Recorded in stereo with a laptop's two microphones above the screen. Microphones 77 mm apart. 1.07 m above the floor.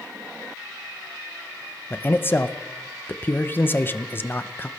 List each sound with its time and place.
1.9 s a man speaking: 30° left (ahead or behind), 0.9 m